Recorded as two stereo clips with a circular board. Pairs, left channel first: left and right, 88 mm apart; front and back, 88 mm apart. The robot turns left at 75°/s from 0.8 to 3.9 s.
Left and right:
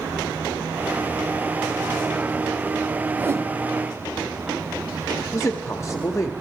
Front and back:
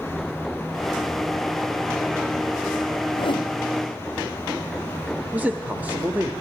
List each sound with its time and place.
3.2 s a whoosh: 15° right, 0.6 m; by 3.5 s 45° right, 0.6 m
5.3 s a man speaking: 120° left, 1.0 m